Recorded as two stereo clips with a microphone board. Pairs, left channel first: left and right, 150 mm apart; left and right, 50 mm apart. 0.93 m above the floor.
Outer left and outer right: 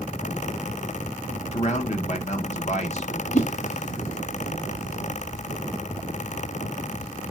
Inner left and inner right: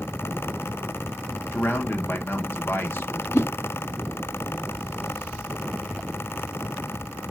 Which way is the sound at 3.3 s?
50° left (ahead or behind).